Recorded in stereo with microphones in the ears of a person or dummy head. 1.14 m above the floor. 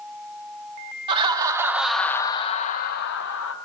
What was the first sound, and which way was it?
Laughter, 30° right (ahead or behind).